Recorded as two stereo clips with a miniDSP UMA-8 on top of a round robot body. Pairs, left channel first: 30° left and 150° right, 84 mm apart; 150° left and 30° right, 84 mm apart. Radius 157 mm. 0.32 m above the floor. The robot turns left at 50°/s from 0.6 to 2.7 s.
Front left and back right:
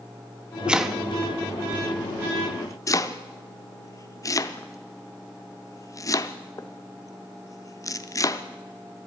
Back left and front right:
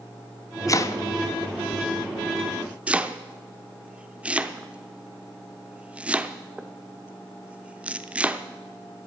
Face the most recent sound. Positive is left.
turn(degrees=35)